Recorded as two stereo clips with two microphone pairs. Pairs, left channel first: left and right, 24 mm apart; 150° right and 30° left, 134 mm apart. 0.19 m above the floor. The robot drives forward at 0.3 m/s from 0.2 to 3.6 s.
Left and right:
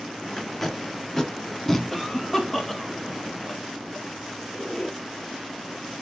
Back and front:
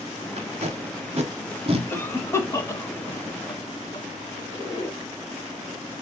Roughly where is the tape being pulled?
Ahead.